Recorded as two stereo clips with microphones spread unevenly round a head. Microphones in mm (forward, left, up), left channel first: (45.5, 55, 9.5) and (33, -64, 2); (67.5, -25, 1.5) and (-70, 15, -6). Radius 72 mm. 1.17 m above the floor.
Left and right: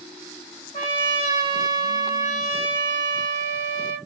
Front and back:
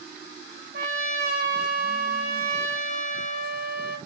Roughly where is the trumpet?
Behind left.